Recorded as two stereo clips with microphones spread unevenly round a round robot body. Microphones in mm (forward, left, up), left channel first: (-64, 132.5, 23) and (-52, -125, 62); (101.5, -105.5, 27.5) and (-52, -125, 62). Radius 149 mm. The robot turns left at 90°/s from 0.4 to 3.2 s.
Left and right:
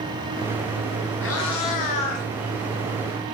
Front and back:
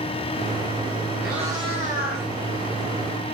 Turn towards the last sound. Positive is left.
turn(degrees=-40)